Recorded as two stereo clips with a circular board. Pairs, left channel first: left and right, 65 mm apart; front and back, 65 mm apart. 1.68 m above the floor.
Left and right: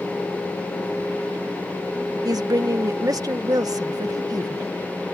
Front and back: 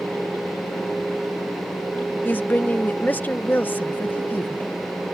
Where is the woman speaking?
65° right.